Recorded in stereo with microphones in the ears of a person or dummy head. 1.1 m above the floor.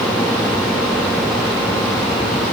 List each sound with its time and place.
Only background noise.